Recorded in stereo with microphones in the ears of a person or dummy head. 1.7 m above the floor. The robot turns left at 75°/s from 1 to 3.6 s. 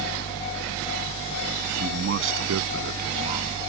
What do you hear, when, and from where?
1.8 s a man speaking: 40° right; by 3.6 s 175° right